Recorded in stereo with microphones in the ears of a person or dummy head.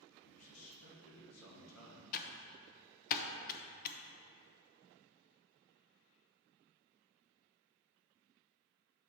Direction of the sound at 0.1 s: 80° left.